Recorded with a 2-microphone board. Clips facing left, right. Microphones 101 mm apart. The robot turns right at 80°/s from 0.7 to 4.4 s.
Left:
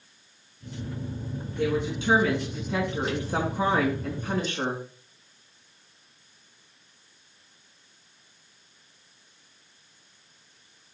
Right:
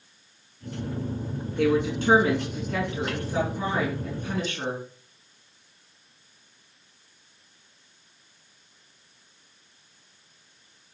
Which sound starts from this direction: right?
A woman speaking, at 1.6 s.